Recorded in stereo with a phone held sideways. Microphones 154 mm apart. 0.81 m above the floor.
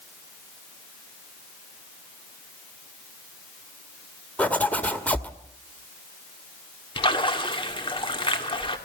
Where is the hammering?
I don't hear hammering.